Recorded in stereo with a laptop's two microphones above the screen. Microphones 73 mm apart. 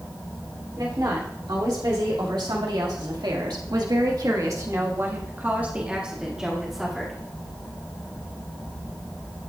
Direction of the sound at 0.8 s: 65° right (ahead or behind).